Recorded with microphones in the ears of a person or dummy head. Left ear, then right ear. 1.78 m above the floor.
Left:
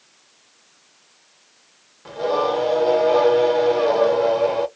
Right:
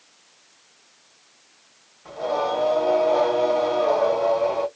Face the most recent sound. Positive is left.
turn(degrees=60)  # may be behind; listen again after turning